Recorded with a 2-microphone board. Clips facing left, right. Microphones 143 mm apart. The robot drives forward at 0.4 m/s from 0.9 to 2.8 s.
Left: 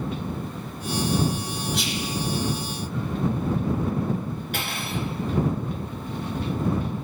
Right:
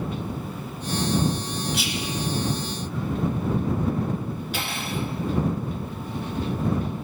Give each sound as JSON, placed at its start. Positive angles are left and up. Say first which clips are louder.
{"t": 1.7, "sound": "whispering", "louder": "even", "side_deg": -5, "distance_m": 1.3}
{"t": 4.5, "sound": "cutlery clinking", "louder": "even", "side_deg": 55, "distance_m": 2.5}